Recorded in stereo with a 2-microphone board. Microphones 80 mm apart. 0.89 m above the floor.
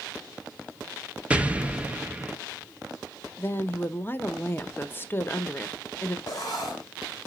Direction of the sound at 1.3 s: 15° right (ahead or behind).